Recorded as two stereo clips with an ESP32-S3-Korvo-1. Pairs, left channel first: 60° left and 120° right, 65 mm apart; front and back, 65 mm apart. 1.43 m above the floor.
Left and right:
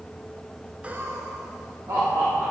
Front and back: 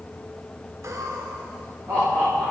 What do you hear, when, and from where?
0.8 s laughter: 175° left, 0.5 m; by 2.5 s 125° right, 2 m